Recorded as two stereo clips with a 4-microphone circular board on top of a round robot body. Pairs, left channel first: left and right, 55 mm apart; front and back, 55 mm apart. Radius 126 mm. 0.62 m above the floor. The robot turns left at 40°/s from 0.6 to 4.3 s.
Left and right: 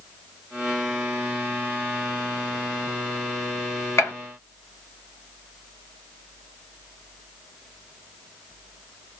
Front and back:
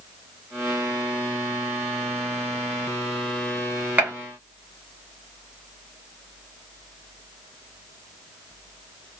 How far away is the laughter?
No laughter in this recording.